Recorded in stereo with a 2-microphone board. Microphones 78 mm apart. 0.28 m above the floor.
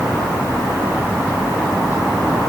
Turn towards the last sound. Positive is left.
No sound to turn to.